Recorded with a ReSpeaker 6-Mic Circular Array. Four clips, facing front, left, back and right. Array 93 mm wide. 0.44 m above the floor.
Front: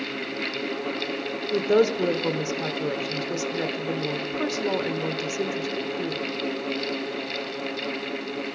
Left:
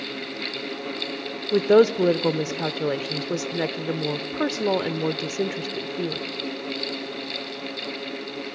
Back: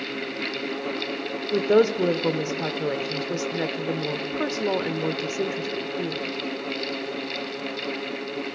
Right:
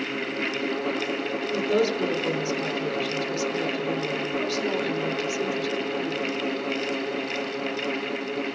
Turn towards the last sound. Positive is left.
turn(degrees=105)